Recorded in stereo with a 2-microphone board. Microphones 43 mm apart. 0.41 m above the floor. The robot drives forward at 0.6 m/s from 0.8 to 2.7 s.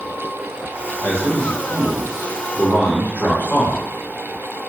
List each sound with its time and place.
1.0 s a man speaking: 55° left (ahead or behind), 2 m; by 3.8 s 45° left (ahead or behind), 2.5 m